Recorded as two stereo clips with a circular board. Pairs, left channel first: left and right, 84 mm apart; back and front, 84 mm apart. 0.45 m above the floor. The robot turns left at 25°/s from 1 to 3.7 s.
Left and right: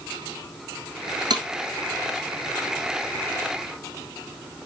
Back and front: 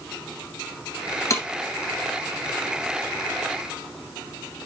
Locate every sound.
1.3 s breaking glass: 125° right, 1.7 m; by 1.5 s 130° right, 1.7 m